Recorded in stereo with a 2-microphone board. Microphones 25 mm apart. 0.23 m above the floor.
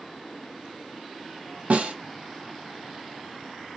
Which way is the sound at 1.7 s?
85° right.